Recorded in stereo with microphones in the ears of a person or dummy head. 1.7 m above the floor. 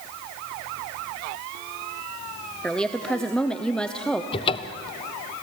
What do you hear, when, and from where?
2.6 s a woman speaking: centre (ahead or behind), 0.8 m
4.3 s a cupboard door: 25° left (ahead or behind), 0.6 m